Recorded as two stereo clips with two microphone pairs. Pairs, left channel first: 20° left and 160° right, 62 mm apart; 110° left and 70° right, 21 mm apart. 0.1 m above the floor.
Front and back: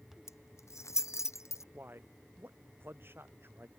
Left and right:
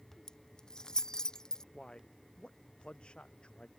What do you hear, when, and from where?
0.3 s keys jangling: 50° left
1.7 s a man speaking: 145° left